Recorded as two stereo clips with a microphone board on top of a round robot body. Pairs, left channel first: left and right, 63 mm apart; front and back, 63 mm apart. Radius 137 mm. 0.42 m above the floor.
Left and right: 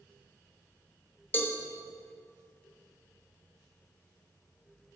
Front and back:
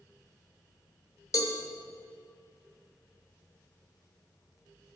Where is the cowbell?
30° left, 0.9 m.